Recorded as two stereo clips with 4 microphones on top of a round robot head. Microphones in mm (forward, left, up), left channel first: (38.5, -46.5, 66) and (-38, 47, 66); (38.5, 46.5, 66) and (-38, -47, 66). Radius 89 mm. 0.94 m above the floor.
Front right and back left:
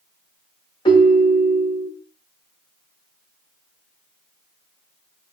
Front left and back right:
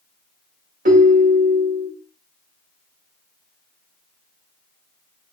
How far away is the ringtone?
About 1.4 m.